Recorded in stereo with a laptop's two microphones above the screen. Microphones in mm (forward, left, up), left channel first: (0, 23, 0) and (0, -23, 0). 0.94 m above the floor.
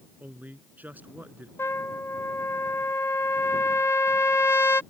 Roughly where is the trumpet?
Left.